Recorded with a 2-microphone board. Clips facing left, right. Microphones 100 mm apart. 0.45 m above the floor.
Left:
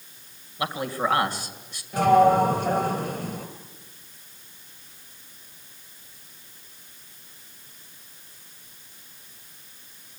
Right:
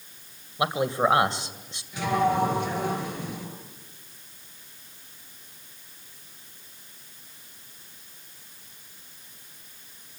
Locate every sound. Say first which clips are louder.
0.6 s a man speaking: right 3 dB; 20° right (ahead or behind), 2 m
1.9 s a sliding door: left 7 dB; 45° left (ahead or behind), 4 m